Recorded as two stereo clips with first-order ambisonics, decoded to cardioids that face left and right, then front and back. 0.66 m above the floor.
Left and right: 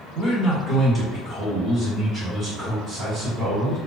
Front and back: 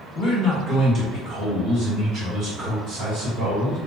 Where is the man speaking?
80° left, 1.2 m; by 3.8 s 160° right, 2.0 m.